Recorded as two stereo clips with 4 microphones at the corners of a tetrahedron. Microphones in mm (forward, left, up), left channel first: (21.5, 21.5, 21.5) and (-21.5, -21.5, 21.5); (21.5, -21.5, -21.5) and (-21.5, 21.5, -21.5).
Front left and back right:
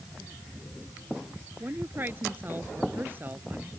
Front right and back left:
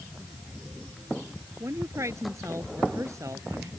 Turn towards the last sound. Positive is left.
turn(degrees=170)